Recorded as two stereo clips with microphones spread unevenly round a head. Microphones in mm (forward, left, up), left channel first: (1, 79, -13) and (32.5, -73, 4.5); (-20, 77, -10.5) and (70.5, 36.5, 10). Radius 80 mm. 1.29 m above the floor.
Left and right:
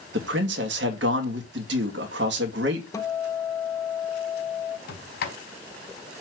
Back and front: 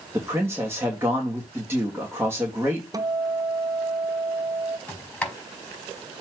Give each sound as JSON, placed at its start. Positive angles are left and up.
{"t": 0.1, "sound": "a man speaking", "azimuth_deg": -100, "distance_m": 2.5}
{"t": 2.9, "sound": "a guitar", "azimuth_deg": 30, "distance_m": 0.9}
{"t": 4.9, "sound": "a sliding door", "azimuth_deg": 75, "distance_m": 4.5}